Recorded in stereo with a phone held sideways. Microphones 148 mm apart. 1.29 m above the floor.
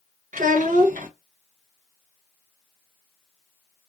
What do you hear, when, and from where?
0.3 s a child speaking: 60° right (ahead or behind), 0.7 m